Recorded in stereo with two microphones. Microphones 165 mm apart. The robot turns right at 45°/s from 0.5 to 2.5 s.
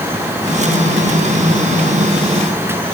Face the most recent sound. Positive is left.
No sound to turn to.